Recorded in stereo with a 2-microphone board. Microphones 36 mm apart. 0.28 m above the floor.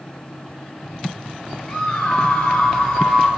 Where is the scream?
20° left (ahead or behind), 4.5 m.